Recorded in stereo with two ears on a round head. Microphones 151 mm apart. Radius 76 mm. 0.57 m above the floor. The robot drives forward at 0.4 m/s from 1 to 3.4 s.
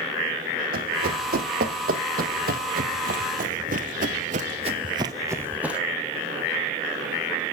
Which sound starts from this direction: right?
Running footsteps, at 0.7 s.